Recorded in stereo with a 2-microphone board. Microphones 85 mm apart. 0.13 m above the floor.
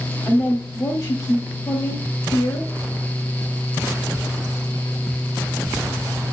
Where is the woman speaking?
35° left (ahead or behind), 2.5 m.